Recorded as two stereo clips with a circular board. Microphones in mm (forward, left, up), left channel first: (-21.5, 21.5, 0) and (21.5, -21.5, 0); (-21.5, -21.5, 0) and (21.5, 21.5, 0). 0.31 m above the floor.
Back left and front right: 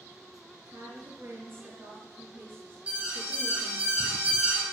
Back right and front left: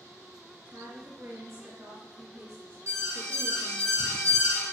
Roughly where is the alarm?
Ahead.